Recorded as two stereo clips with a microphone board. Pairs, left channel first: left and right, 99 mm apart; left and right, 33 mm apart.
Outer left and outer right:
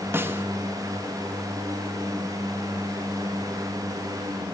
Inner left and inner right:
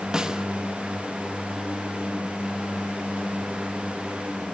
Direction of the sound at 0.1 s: 25° right (ahead or behind).